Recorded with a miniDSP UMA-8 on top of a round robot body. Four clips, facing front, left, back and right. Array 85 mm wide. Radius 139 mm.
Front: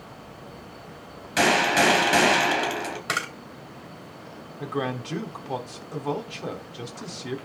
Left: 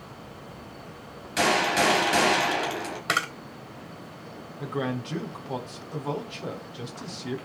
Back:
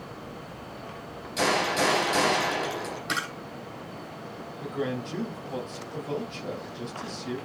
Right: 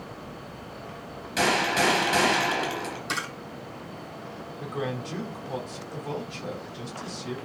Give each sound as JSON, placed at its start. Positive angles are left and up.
{"t": 1.4, "sound": "a gunshot", "azimuth_deg": 0, "distance_m": 3.0}
{"t": 3.1, "sound": "a camera shutter", "azimuth_deg": 65, "distance_m": 3.0}
{"t": 4.6, "sound": "a man speaking", "azimuth_deg": 15, "distance_m": 4.0}